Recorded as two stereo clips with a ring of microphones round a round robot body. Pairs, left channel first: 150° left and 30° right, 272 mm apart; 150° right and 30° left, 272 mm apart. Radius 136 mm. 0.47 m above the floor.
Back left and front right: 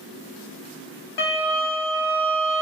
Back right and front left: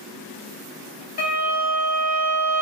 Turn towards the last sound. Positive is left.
turn(degrees=145)